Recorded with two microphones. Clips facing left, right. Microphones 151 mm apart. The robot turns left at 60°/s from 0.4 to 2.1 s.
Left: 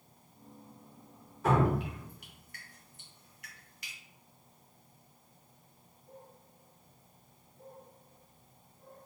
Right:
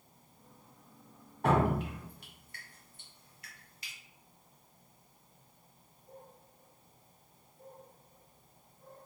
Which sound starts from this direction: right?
Dripping, at 1.4 s.